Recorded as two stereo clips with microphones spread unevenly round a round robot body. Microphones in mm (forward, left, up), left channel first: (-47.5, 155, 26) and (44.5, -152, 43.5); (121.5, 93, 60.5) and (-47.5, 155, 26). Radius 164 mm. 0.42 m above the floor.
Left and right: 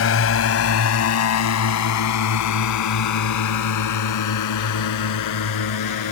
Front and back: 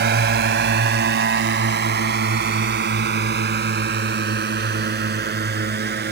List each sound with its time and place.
0.0 s a drone: 155° left; by 6.1 s 135° left